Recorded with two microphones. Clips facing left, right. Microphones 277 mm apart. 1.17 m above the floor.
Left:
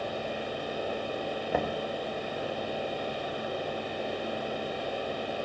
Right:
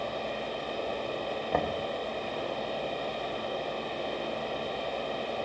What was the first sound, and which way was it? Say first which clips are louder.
Knocking: even; 5° left (ahead or behind).